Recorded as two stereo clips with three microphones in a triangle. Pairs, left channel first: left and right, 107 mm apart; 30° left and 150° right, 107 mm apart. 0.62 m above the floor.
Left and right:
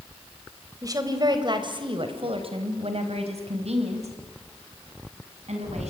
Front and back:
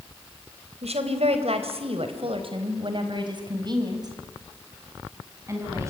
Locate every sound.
0.8 s a woman speaking: 145° right, 3.5 m; by 5.9 s 85° right, 6 m